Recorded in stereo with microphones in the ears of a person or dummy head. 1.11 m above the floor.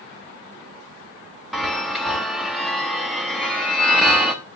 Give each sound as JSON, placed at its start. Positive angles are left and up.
{"t": 1.5, "sound": "a chime", "side_deg": -5, "distance_m": 0.8}